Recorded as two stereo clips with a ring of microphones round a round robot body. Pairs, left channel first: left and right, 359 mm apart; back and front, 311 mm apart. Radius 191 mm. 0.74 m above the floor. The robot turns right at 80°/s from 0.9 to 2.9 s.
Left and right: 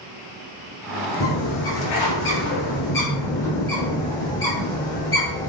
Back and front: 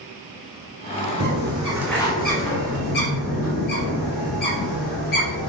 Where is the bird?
35° left, 3.5 m; by 5.5 s 170° left, 3.5 m.